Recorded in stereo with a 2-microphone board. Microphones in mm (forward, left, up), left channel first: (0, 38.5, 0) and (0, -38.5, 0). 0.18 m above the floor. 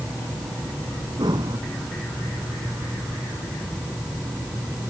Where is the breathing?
75° right (ahead or behind).